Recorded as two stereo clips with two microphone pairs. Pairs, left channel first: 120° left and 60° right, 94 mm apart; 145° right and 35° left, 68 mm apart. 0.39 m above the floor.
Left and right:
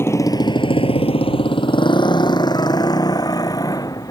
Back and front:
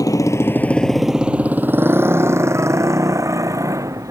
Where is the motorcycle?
175° right; by 4.1 s 70° left.